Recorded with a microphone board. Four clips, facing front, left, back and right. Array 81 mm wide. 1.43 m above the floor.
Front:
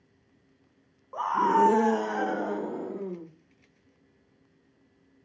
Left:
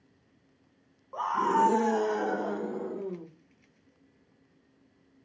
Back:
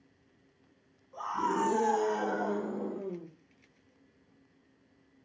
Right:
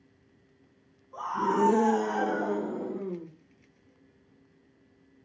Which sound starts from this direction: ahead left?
A scream, at 1.1 s.